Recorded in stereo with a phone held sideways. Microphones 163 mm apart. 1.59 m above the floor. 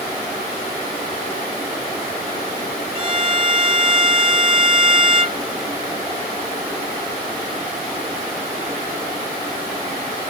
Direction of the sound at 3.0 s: 35° right (ahead or behind).